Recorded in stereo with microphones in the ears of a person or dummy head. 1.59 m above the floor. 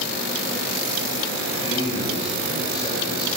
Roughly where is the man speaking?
Left.